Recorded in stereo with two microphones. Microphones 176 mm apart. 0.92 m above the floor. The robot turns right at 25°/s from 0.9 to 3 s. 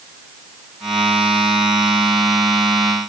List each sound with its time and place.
Only background noise.